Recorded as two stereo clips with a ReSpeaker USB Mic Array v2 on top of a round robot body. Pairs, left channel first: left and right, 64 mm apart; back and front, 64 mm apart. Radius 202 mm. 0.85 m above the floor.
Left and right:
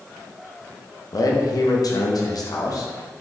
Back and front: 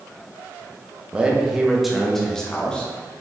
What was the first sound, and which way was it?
A man speaking, 70° left.